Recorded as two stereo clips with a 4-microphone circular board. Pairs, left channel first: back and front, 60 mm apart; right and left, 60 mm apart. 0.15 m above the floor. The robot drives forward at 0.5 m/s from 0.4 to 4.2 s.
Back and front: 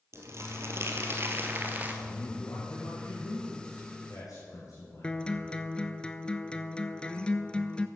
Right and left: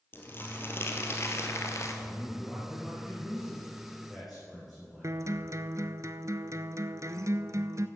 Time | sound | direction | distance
0.1 | crumpling | 40° right | 1.8 m
2.0 | a man speaking | 170° left | 1.9 m
5.0 | a guitar | 105° left | 0.5 m